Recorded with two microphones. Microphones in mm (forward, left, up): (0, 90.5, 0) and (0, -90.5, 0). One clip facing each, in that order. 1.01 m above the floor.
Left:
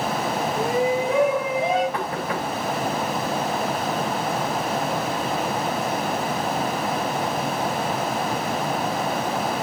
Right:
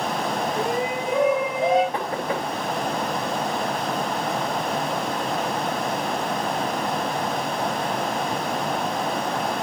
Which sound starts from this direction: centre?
A shout, at 0.6 s.